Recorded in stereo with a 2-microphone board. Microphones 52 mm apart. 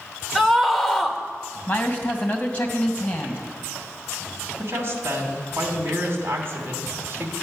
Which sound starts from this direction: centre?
A scream, at 0.3 s.